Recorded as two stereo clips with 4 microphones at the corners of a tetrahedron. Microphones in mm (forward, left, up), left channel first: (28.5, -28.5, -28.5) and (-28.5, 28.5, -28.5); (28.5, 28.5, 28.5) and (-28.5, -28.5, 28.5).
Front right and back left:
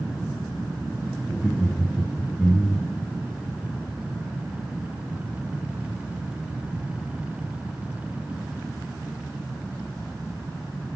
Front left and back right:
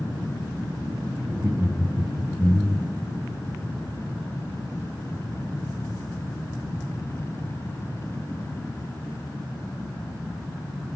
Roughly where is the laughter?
Behind right.